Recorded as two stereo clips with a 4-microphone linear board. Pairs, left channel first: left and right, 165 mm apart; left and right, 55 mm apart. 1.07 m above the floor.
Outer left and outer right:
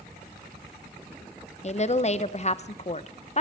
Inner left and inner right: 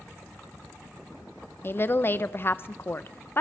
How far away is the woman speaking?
About 0.5 m.